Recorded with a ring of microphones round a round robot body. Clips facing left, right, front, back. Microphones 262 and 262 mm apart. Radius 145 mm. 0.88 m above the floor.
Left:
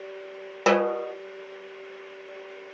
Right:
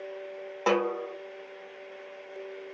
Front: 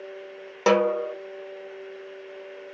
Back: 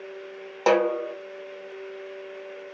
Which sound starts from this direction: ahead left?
A snare drum, at 0.7 s.